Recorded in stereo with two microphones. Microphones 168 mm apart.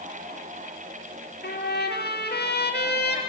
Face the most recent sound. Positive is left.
turn(degrees=75)  # may be behind; listen again after turning